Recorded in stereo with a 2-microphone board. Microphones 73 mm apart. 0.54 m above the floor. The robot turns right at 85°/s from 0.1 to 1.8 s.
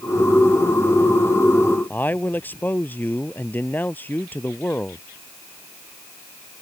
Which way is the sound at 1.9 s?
25° left (ahead or behind).